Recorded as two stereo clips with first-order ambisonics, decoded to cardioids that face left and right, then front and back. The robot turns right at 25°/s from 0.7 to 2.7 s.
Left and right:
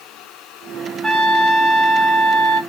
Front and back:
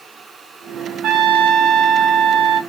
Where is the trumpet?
170° left, 1.4 m; by 2.6 s 150° right, 1.4 m.